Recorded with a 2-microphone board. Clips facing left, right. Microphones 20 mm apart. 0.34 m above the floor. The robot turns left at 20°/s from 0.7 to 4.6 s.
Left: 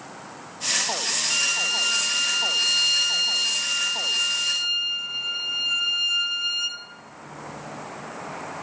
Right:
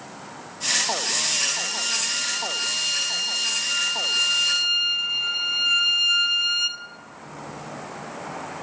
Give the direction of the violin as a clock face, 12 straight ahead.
11 o'clock.